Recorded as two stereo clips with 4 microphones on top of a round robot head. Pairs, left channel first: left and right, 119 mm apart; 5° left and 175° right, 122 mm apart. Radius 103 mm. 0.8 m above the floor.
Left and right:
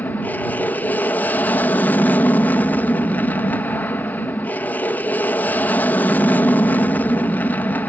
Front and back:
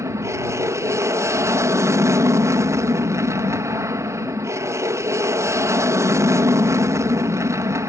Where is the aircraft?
150° left.